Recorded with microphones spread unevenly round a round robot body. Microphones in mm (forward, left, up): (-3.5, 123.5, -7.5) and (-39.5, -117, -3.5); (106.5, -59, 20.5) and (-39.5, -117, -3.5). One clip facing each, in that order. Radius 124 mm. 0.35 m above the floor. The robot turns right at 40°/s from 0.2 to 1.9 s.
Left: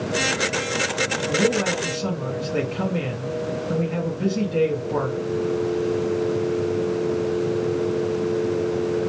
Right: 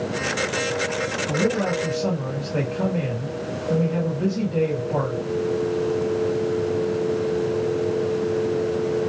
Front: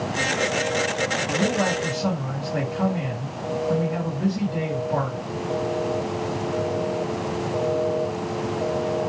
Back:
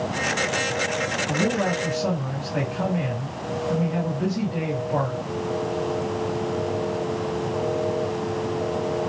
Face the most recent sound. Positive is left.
turn(degrees=125)